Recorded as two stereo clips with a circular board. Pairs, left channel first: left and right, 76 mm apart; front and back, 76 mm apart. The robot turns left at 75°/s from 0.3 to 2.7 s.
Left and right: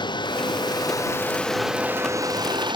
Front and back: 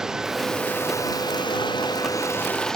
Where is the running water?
95° left; by 2.8 s 85° right.